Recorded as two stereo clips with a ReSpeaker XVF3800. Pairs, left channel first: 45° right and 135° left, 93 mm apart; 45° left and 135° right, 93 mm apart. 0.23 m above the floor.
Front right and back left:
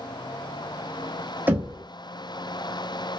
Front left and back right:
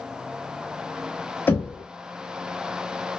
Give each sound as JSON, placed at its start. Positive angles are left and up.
{"t": 1.5, "sound": "knocking", "azimuth_deg": 90, "distance_m": 0.7}